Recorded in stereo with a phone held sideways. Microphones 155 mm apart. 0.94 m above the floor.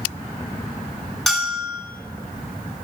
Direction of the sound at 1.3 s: Centre (ahead or behind).